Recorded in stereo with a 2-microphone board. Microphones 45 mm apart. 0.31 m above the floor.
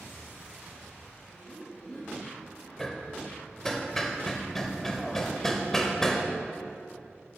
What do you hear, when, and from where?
1.3 s laughter: 25° left (ahead or behind), 1.5 m
2.8 s hammering: 15° left (ahead or behind), 0.6 m